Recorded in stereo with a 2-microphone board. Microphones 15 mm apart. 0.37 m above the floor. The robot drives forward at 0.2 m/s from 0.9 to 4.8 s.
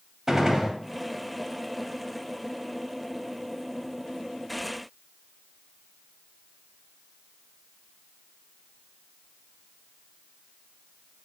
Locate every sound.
0.3 s a gunshot: 30° right (ahead or behind), 0.6 m